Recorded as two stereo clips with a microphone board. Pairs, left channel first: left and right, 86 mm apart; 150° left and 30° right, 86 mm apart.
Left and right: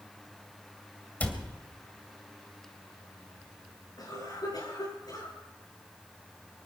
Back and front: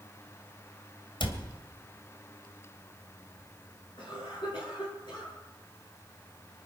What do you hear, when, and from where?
1.2 s a cupboard door: 160° left, 2 m
4.0 s a cough: 130° left, 9 m